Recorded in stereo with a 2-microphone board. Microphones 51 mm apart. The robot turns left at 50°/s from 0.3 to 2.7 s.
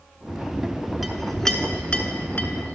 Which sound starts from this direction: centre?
A clink, at 1.0 s.